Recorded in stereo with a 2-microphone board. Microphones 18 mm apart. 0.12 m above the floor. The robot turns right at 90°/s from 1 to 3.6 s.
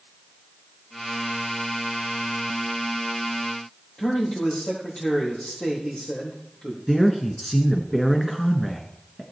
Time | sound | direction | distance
4.0 | a man speaking | 55° left (ahead or behind) | 4 m
6.9 | a man speaking | 10° left (ahead or behind) | 1.1 m